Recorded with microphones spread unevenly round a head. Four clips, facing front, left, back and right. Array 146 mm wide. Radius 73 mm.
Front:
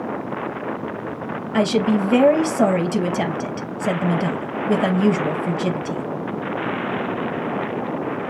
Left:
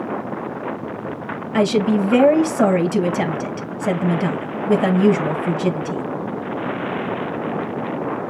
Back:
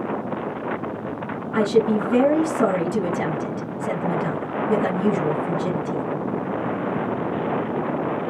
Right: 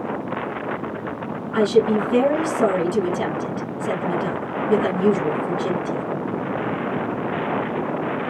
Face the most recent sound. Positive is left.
turn(degrees=45)